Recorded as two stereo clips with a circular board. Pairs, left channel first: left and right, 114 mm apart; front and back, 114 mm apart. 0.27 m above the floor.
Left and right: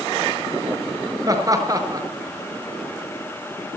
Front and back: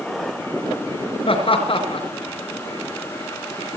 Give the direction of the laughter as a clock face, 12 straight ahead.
1 o'clock.